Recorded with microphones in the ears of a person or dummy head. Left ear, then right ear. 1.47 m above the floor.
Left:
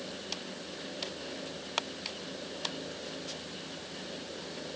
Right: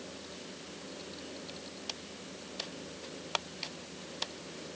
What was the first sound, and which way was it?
Only background noise.